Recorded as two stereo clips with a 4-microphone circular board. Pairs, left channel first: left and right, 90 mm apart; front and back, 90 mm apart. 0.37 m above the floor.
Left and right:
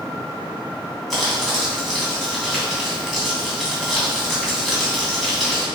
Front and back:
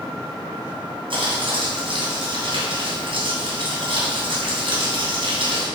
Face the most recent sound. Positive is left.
turn(degrees=180)